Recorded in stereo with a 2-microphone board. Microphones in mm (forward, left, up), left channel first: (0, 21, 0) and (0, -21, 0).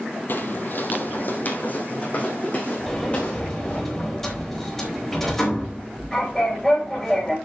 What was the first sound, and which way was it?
Footsteps, 50° left (ahead or behind).